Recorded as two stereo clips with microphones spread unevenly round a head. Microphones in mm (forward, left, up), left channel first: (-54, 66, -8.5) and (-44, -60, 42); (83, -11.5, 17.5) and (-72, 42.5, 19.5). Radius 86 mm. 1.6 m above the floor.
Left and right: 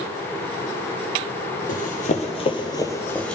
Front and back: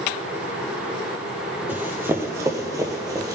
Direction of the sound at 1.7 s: 90° left.